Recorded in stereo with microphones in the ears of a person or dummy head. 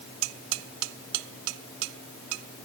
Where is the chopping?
No chopping in this recording.